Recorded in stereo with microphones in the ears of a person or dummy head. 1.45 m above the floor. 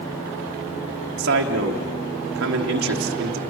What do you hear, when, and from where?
1.2 s a man speaking: 60° right (ahead or behind), 1.2 m